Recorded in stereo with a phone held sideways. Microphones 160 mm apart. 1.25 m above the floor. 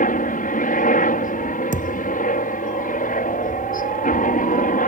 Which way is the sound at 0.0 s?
65° left (ahead or behind).